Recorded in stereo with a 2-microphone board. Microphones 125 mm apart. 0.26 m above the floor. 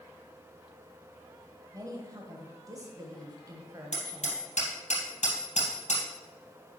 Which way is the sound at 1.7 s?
30° right (ahead or behind).